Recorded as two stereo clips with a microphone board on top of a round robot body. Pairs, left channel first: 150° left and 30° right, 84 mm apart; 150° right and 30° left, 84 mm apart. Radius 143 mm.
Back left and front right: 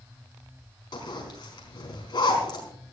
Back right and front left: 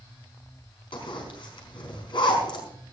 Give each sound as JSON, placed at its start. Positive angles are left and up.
{"t": 0.9, "sound": "a zipper", "azimuth_deg": -175, "distance_m": 4.5}